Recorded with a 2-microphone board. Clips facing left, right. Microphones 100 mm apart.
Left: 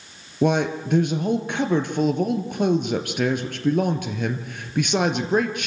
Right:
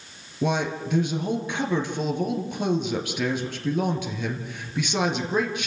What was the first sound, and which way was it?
A man speaking, 50° left (ahead or behind).